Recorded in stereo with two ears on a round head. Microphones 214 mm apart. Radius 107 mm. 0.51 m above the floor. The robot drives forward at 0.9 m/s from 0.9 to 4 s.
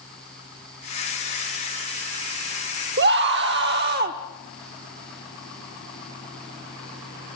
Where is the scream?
40° right (ahead or behind), 1.0 m.